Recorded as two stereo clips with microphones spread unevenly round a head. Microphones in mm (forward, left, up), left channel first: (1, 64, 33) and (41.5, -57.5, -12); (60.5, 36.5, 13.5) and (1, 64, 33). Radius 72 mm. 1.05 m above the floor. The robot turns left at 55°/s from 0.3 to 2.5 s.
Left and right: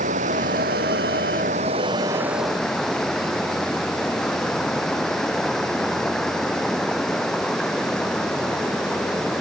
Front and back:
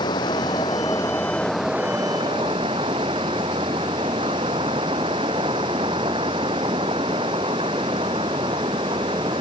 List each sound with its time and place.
0.0 s running water: 45° right; by 9.4 s 165° right